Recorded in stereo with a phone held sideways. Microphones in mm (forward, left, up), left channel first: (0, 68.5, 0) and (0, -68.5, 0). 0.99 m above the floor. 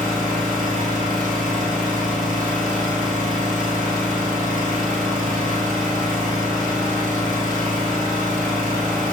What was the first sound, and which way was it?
An engine running, 65° right (ahead or behind).